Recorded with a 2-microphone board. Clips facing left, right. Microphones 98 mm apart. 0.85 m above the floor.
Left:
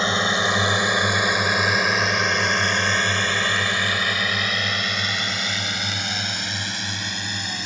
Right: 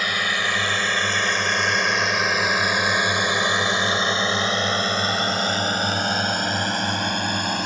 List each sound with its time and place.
0.0 s a drone: 25° left (ahead or behind); by 7.7 s 55° right (ahead or behind)